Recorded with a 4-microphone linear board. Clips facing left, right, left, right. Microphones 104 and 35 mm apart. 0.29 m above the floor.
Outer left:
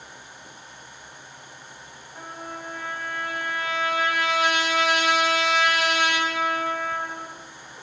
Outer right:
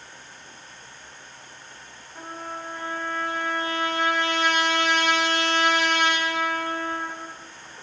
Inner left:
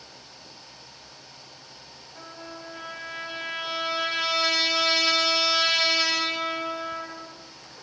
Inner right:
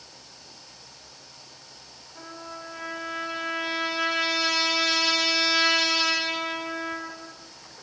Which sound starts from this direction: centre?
A trumpet, at 2.1 s.